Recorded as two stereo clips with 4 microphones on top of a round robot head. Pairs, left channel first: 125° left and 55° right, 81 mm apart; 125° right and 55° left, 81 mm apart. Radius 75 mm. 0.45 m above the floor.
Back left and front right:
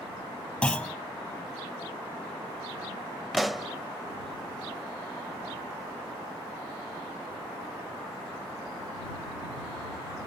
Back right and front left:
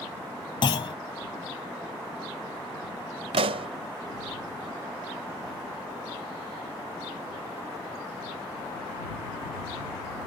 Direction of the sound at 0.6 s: 155° right.